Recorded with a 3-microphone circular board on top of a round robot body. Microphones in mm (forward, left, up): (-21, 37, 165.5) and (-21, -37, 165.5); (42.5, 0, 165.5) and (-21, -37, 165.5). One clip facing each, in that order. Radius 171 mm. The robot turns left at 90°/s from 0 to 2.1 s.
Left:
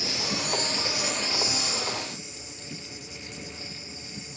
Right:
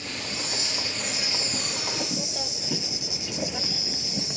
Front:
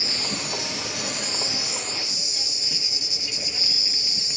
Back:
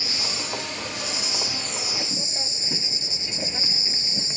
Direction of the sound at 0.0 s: 100° left.